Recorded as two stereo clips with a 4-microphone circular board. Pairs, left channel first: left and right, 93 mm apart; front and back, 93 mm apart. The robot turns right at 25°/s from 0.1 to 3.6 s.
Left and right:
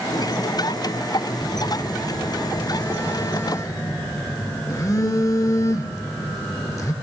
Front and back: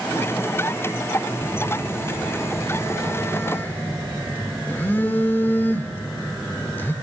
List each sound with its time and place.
1.4 s a phone buzzing: straight ahead, 1.0 m; by 6.9 s 55° left, 1.0 m